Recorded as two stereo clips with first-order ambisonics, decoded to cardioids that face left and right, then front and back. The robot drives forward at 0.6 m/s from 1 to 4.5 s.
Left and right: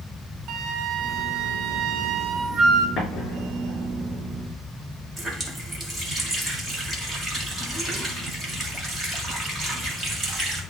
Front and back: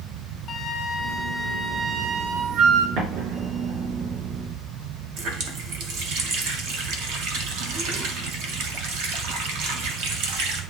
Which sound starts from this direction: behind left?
An explosion, at 3.0 s.